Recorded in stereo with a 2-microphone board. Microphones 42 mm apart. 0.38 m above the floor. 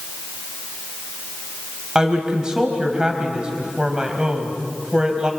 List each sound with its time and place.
1.9 s a woman speaking: 20° right (ahead or behind), 2.5 m